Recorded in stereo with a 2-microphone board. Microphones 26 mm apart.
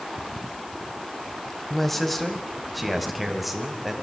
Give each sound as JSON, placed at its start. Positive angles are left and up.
{"t": 1.7, "sound": "a man speaking", "side_deg": 10, "distance_m": 3.5}